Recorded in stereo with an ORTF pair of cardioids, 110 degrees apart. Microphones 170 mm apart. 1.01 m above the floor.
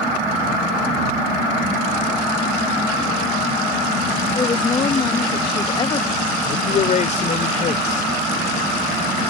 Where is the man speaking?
45° left.